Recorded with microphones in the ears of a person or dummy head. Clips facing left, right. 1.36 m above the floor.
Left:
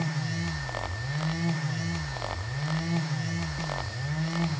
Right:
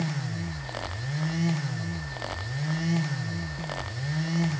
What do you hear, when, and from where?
Only background noise.